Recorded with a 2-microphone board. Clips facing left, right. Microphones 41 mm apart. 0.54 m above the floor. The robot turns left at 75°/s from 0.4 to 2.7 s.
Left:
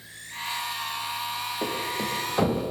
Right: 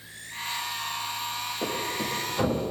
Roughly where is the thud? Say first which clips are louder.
Even; centre.